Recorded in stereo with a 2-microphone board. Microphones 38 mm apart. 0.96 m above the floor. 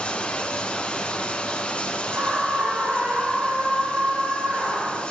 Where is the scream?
40° right (ahead or behind), 7 m.